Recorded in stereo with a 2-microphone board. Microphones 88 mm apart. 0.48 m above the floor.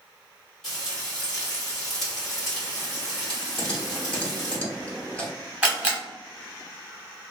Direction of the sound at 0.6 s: 5° left (ahead or behind).